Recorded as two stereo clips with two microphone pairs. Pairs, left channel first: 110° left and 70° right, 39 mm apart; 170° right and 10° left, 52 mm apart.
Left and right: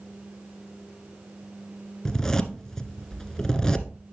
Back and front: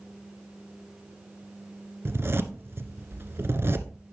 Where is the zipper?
40° left, 1.2 m.